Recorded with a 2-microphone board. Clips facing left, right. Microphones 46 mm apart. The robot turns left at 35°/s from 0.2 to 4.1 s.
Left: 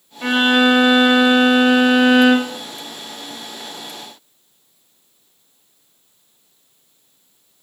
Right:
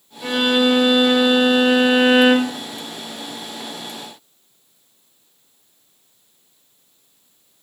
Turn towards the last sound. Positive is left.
turn(degrees=-75)